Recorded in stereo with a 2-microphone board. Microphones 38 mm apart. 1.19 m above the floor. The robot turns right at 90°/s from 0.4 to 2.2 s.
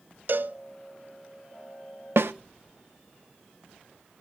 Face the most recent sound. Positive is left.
turn(degrees=-75)  # may be behind; listen again after turning